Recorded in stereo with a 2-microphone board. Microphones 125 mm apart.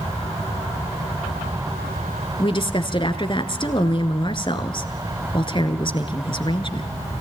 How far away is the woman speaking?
About 1.8 m.